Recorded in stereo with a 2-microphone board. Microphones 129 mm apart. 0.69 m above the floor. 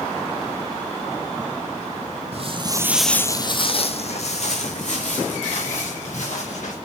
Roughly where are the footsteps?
Right.